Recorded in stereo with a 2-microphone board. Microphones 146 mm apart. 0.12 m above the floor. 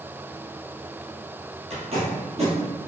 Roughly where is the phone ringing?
I don't hear a phone ringing.